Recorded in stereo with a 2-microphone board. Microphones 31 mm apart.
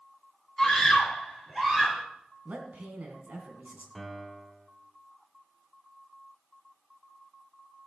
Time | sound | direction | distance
0.6 | a scream | 5° left (ahead or behind) | 2.5 m
2.5 | a man speaking | 60° right (ahead or behind) | 3 m
4.0 | a piano | 5° left (ahead or behind) | 1.2 m